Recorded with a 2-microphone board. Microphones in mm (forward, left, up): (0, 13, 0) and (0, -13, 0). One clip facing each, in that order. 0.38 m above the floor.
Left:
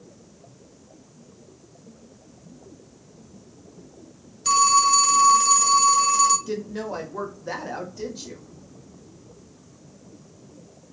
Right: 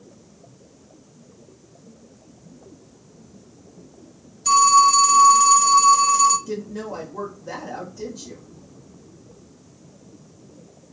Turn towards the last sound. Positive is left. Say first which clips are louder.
# even
turn(degrees=30)  # may be behind; listen again after turning